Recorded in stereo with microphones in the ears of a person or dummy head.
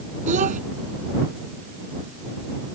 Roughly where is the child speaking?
Right.